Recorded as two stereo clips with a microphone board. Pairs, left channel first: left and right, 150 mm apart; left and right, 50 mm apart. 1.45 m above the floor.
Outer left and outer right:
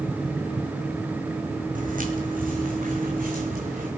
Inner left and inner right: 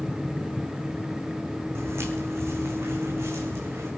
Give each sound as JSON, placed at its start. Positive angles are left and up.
{"t": 1.8, "sound": "footsteps", "side_deg": -65, "distance_m": 3.0}